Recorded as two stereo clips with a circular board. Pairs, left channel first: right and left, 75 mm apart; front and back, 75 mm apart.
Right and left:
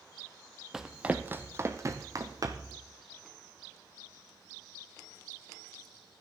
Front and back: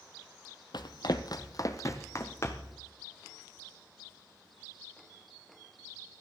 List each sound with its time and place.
0.7 s running footsteps: 5° left, 0.8 m; by 2.8 s 60° left, 1.5 m